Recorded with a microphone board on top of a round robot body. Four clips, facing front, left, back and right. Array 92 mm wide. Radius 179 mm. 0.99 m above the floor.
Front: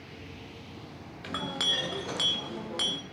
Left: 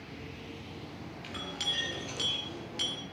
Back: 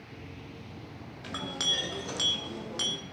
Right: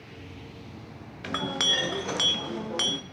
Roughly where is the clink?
Right.